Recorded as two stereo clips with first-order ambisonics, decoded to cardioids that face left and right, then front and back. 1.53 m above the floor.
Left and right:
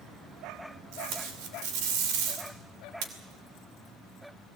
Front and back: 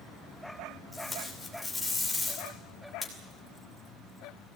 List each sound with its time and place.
0.9 s tape being pulled: 80° right, 2.5 m